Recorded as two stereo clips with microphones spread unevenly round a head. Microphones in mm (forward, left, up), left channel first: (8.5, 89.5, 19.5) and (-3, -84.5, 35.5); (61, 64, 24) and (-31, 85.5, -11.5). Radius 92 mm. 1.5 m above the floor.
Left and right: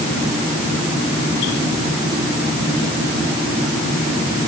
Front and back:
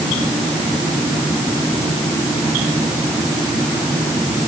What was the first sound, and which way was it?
Only background noise.